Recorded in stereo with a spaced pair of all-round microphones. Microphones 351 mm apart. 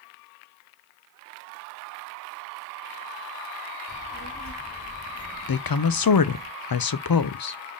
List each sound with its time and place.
3.9 s a child speaking: 40° left (ahead or behind), 2.5 m; by 6.5 s 55° left (ahead or behind), 1.6 m
5.5 s a woman speaking: 75° left (ahead or behind), 0.5 m